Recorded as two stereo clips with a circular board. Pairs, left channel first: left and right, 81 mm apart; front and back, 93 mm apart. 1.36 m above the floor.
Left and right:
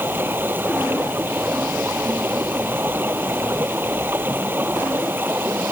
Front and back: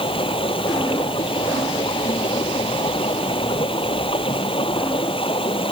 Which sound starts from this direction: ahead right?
Running water, at 0.0 s.